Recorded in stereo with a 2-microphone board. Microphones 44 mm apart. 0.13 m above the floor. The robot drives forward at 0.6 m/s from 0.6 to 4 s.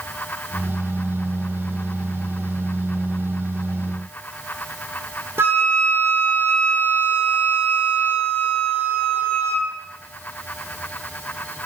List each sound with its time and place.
5.4 s a flute: 65° right (ahead or behind), 1.5 m